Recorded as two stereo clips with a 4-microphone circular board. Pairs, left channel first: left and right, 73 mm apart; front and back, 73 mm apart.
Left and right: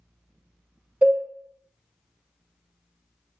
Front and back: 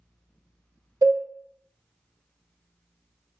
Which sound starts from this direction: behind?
A cowbell, at 1.0 s.